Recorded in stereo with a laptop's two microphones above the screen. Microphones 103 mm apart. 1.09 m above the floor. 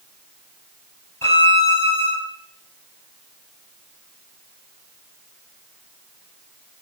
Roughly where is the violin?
Left.